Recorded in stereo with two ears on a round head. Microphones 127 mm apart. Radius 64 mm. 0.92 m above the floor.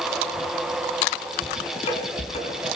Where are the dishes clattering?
45° left (ahead or behind), 7 m.